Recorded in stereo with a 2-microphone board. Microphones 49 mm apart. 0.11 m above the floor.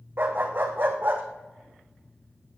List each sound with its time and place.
0.2 s a dog barking: 50° right (ahead or behind), 2 m